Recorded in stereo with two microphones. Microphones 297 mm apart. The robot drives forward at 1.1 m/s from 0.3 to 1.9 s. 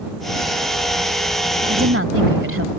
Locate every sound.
1.7 s a woman speaking: 45° right (ahead or behind)